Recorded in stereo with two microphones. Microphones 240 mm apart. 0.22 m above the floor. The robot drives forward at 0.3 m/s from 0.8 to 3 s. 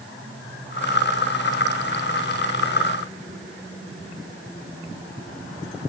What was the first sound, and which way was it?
Only background noise.